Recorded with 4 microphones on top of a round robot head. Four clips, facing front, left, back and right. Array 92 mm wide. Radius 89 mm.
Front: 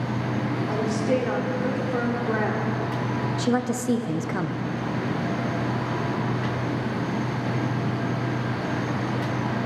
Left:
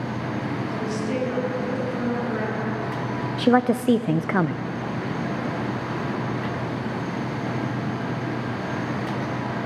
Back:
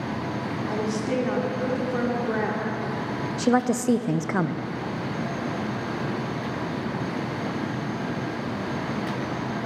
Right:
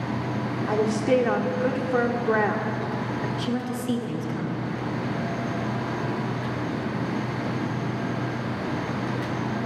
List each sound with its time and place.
0.7 s a woman speaking: 90° right, 1.5 m
3.4 s a woman speaking: 110° left, 0.5 m